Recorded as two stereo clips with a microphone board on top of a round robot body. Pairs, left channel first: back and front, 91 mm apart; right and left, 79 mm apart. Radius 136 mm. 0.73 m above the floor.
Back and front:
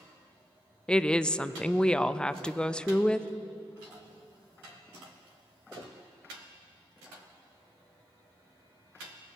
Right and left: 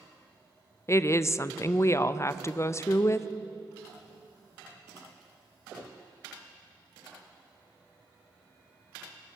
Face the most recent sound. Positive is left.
turn(degrees=-105)